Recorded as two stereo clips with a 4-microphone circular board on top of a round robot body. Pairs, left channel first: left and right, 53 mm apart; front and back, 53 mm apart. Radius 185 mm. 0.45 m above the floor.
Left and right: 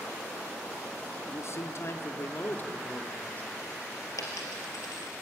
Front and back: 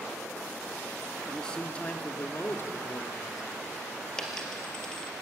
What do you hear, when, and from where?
1.3 s a man speaking: 80° left, 1.7 m; by 3.5 s 25° left, 2.5 m
4.2 s a dropped coin: 80° left, 3 m